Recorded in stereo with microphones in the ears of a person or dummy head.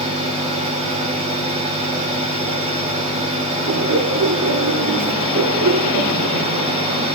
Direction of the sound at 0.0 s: 40° right (ahead or behind).